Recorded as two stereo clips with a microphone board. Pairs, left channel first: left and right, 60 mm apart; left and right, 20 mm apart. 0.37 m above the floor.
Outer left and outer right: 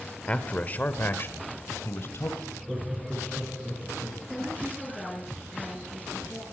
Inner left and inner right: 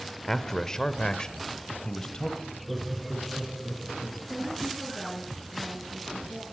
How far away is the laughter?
About 5.5 m.